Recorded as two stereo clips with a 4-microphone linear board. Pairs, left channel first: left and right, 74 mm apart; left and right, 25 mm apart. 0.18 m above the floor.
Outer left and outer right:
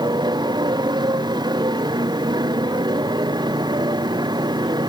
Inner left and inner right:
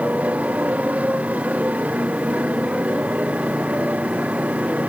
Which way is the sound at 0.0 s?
75° right (ahead or behind).